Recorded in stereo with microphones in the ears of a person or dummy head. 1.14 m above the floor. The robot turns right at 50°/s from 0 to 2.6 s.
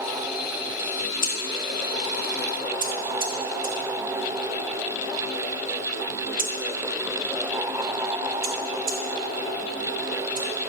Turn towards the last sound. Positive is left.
turn(degrees=-40)  # may be behind; listen again after turning